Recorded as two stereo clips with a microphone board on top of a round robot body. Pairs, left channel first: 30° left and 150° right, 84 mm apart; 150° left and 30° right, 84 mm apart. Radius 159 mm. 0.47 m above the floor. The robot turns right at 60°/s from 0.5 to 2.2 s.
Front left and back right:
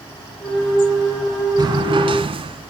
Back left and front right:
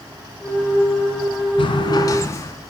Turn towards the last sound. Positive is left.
turn(degrees=-150)